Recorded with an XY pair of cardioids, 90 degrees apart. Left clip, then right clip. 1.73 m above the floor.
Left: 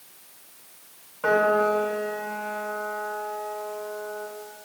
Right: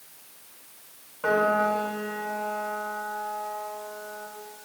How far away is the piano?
About 5 m.